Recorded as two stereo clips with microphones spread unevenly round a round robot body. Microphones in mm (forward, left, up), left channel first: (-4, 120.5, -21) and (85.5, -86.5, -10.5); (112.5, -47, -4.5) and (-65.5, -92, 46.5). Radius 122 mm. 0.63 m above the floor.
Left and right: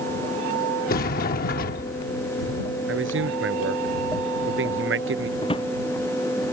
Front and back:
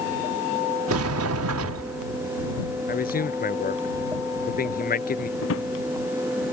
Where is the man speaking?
30° right.